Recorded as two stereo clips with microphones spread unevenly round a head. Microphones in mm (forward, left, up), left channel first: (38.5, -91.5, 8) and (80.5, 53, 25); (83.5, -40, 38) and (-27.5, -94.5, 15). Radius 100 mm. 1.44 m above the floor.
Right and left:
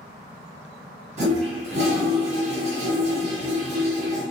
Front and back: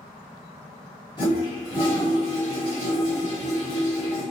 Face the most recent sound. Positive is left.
turn(degrees=70)